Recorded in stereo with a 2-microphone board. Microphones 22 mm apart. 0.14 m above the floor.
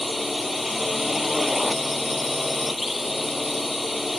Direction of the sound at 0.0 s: 5° right (ahead or behind).